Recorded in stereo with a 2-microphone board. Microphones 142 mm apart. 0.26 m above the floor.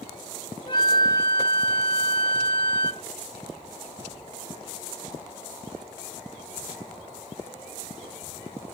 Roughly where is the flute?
Left.